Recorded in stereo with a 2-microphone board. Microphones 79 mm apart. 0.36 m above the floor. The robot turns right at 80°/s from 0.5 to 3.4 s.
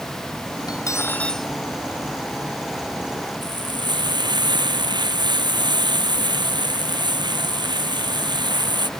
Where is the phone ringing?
I don't hear a phone ringing.